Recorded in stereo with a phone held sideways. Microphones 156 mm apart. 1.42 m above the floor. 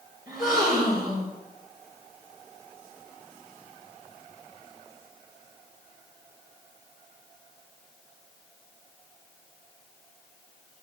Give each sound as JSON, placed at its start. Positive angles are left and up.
{"t": 0.3, "sound": "a gasp", "side_deg": 70, "distance_m": 5.0}